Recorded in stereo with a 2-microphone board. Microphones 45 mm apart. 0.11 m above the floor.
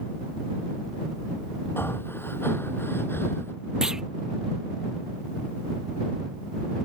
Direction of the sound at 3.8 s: 15° right (ahead or behind).